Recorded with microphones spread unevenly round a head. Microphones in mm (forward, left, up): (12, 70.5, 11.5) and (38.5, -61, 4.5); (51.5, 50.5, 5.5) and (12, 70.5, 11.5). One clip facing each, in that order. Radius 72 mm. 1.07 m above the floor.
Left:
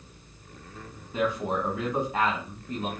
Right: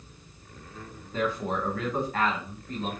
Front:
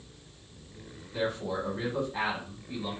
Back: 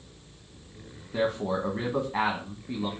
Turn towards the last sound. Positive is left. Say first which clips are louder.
# left 2 dB, back 4 dB
turn(degrees=-170)